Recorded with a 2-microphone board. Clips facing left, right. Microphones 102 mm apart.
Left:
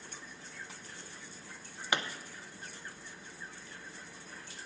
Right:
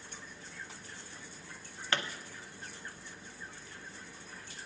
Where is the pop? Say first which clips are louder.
Left 1 dB; 15° left (ahead or behind), 0.6 m.